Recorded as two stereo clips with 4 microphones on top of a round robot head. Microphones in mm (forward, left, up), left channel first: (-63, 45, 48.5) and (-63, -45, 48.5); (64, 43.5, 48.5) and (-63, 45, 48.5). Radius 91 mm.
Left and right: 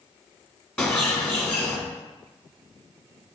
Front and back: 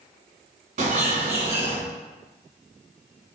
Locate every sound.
0.8 s a bird: 165° left, 1.2 m